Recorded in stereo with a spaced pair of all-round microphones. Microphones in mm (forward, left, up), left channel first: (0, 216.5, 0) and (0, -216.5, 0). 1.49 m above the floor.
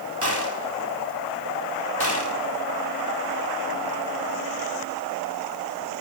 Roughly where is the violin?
I don't hear a violin.